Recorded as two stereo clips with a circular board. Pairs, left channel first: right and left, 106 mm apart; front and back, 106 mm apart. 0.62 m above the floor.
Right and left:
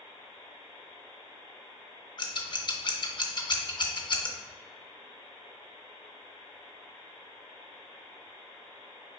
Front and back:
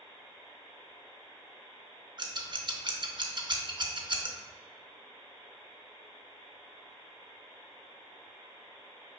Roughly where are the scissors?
Behind right.